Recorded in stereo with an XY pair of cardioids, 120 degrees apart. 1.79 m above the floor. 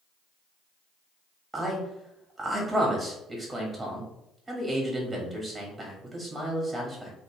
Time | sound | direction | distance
1.5 | a man speaking | 20° right | 1.1 m